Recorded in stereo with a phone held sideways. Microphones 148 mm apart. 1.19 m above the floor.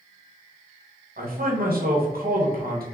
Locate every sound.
1.2 s a man speaking: 80° right, 1.0 m